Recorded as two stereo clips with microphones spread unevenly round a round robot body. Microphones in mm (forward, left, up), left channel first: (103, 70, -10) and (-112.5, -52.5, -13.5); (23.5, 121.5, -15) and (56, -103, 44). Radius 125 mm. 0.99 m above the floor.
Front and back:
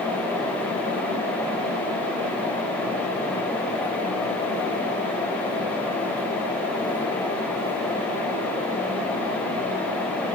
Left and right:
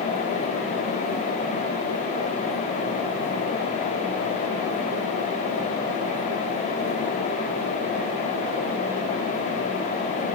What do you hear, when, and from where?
Only background noise.